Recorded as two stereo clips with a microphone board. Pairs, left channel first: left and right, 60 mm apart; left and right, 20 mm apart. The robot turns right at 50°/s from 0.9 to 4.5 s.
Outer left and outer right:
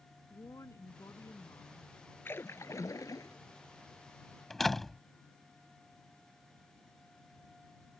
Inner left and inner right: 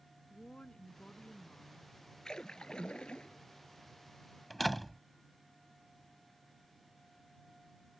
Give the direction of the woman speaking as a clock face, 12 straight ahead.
10 o'clock.